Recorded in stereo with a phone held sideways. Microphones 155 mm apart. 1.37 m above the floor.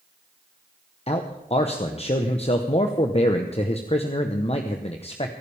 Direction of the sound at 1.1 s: 40° left (ahead or behind).